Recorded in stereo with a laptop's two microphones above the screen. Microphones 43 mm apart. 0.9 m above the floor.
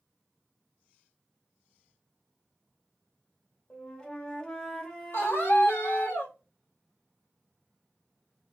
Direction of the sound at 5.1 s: 60° left (ahead or behind).